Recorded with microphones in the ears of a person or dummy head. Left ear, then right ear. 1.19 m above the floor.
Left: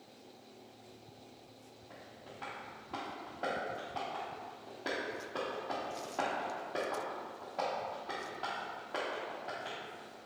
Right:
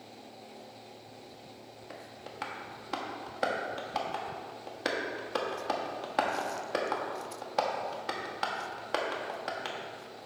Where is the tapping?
70° right (ahead or behind), 1.2 m.